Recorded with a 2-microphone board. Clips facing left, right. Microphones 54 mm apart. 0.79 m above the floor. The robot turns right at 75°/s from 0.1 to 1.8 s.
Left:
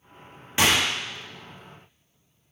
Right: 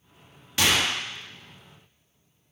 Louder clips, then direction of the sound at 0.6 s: Left 2 dB; 25° left (ahead or behind).